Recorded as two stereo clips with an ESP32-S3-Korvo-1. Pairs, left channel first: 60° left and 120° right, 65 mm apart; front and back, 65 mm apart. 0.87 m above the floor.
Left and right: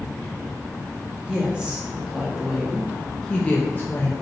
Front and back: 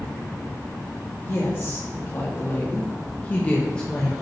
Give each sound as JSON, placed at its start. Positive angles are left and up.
{"t": 1.2, "sound": "a woman speaking", "azimuth_deg": -50, "distance_m": 1.5}